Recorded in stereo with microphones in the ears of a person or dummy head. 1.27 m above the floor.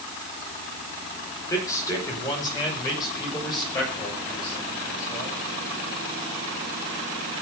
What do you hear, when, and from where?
1.5 s a man speaking: 20° left (ahead or behind), 4 m; by 5.3 s 25° left (ahead or behind), 7.5 m